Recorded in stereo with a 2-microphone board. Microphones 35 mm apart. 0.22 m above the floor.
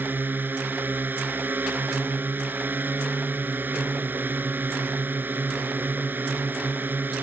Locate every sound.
0.0 s a drone: 65° right (ahead or behind)